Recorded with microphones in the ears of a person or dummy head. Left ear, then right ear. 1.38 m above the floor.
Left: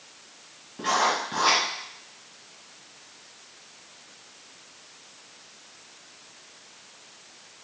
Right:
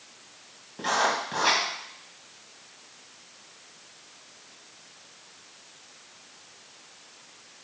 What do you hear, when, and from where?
0.8 s writing: 15° right (ahead or behind), 1.7 m